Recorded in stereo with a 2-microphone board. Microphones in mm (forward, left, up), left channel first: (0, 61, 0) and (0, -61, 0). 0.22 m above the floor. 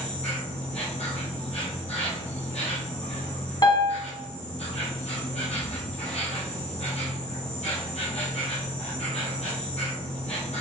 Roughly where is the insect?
Left.